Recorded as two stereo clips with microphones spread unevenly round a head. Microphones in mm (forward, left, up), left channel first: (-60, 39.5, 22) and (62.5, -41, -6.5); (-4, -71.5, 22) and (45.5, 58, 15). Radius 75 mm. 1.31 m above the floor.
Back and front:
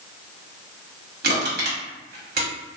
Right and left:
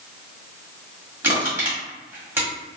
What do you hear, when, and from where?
1.2 s crushing: 5° right, 1.3 m